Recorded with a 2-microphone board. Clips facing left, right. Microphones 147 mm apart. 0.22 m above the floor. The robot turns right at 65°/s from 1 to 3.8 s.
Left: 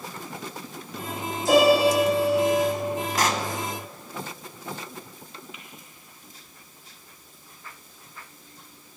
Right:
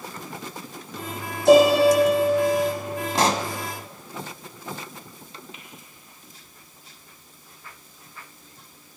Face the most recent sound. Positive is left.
turn(degrees=-30)  # may be behind; listen again after turning